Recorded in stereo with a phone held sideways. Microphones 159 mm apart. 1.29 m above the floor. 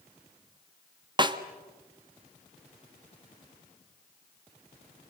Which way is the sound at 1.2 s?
30° right (ahead or behind).